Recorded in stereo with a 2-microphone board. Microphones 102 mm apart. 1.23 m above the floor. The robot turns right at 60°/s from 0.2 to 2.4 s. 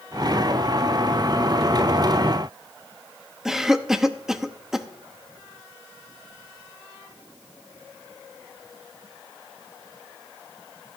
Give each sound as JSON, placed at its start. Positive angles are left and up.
{"t": 3.5, "sound": "a cough", "side_deg": -5, "distance_m": 0.7}